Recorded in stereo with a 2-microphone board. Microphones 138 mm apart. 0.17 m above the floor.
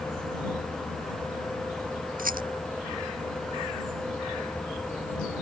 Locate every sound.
2.2 s a rattle: 80° right